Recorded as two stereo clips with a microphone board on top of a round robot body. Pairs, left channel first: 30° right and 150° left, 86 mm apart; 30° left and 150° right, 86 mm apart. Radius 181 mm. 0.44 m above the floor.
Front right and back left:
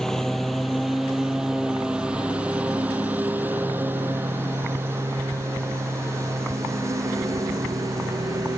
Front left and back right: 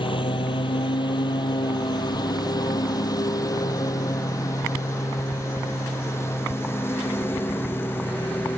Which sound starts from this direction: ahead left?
A lawn mower, at 0.0 s.